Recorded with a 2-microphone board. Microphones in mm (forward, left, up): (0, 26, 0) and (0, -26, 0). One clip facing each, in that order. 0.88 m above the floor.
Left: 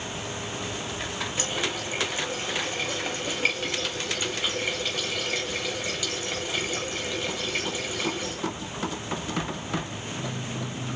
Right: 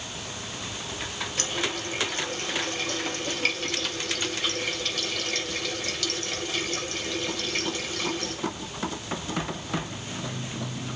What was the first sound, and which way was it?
A running tap, 10° left (ahead or behind).